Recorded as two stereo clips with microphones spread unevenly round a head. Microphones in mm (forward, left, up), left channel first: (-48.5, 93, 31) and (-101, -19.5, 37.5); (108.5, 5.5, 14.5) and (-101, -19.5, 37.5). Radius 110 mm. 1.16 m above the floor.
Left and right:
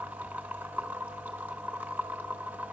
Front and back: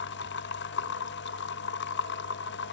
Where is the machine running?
35° right, 0.7 m.